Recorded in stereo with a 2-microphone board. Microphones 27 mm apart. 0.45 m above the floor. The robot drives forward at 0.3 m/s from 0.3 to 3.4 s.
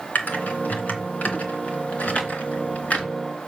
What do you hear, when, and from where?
0.1 s typing on a keyboard: 65° left (ahead or behind), 2.5 m; by 3.0 s 50° left (ahead or behind), 3 m